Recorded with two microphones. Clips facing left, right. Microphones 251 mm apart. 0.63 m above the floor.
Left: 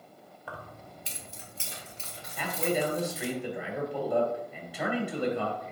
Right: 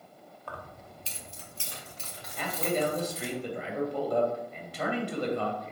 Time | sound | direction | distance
0.5 | keys jangling | 5° left (ahead or behind) | 1.2 m
2.4 | a man speaking | 10° left (ahead or behind) | 2.5 m